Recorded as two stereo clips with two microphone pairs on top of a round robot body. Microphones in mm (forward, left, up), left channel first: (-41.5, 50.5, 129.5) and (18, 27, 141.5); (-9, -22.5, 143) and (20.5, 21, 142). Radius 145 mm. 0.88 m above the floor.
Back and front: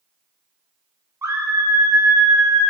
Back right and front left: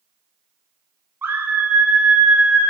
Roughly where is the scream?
Ahead left.